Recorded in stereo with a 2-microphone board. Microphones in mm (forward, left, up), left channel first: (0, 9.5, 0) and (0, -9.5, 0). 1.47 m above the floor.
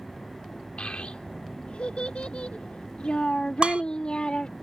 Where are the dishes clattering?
80° right.